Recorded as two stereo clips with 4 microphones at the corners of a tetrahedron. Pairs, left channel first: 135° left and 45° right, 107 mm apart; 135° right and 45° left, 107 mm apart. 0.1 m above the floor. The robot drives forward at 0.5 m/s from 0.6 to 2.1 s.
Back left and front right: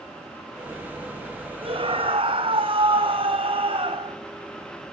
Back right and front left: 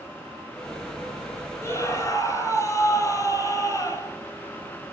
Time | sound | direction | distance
1.6 | a scream | 75° right | 3.5 m